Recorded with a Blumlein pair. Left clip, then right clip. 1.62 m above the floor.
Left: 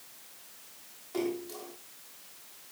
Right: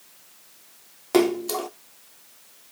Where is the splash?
40° right, 0.8 m.